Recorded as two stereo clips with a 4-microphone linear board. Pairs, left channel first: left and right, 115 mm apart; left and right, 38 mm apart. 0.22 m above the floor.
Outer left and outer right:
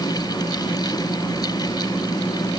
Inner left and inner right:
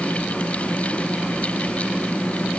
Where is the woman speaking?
No woman speaking in this recording.